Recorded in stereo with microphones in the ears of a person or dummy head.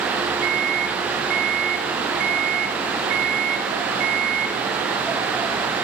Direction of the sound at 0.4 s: 50° right (ahead or behind).